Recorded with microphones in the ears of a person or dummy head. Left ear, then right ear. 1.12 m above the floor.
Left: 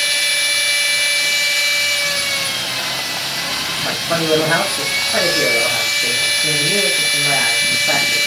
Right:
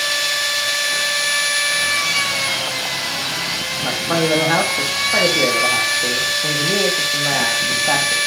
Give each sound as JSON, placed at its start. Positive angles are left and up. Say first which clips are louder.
{"t": 0.0, "sound": "a machine running", "louder": "left 2 dB", "side_deg": -40, "distance_m": 2.5}
{"t": 3.8, "sound": "a man speaking", "louder": "right 1 dB", "side_deg": -25, "distance_m": 1.0}